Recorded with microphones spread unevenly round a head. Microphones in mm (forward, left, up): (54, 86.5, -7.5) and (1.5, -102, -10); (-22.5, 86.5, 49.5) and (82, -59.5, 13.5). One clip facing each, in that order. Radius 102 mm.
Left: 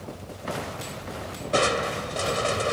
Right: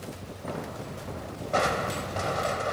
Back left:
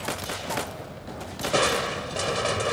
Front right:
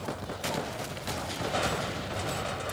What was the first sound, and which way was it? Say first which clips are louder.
Crushing: left 3 dB, back left 9 dB; 120° left.